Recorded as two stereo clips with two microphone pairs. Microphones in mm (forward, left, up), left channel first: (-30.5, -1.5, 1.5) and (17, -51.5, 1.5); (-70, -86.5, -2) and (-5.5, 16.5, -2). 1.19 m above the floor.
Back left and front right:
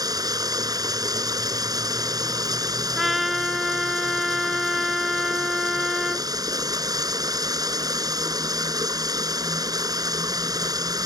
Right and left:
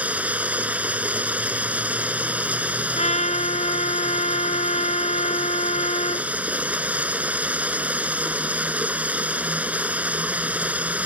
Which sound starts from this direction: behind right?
A trumpet, at 3.0 s.